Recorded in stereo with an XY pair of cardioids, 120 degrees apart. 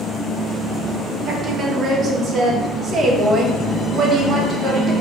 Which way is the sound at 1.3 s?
35° right.